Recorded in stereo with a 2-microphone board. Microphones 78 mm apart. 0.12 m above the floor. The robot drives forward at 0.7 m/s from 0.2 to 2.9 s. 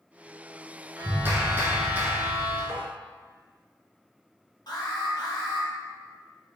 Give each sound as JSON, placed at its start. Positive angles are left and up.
{"t": 1.0, "sound": "a clap", "side_deg": -30, "distance_m": 1.0}
{"t": 2.7, "sound": "tapping", "side_deg": -10, "distance_m": 1.5}
{"t": 4.7, "sound": "an alarm", "side_deg": 60, "distance_m": 1.5}